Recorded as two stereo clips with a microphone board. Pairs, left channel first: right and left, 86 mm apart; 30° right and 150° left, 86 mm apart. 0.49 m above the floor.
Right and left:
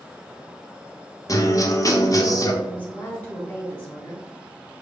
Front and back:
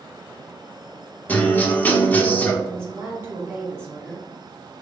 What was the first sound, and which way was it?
A guitar, 85° right.